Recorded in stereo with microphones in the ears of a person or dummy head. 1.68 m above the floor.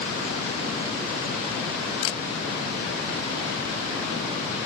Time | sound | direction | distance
2.0 | a camera shutter | 65° left (ahead or behind) | ?